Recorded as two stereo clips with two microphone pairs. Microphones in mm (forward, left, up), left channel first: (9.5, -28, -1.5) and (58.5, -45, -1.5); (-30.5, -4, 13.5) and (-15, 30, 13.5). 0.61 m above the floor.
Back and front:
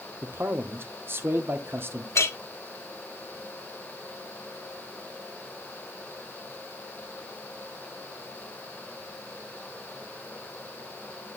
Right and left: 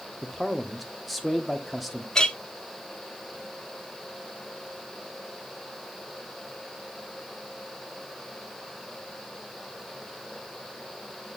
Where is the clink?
175° left, 1.0 m.